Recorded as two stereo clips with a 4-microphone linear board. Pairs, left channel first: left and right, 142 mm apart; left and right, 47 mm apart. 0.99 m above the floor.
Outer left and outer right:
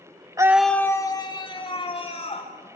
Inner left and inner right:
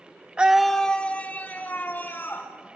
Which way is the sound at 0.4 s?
25° right (ahead or behind).